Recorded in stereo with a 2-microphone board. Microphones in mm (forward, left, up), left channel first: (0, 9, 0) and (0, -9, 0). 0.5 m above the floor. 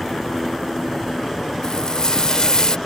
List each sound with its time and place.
1.6 s frying: 55° left (ahead or behind)